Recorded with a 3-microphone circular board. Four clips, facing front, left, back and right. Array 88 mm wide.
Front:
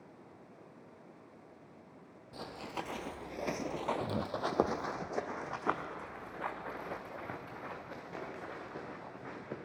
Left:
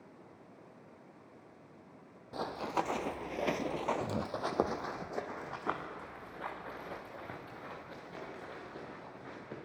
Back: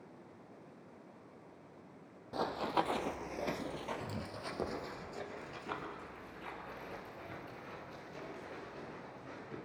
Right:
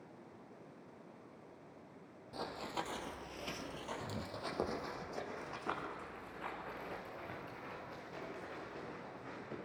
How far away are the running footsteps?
About 1.3 m.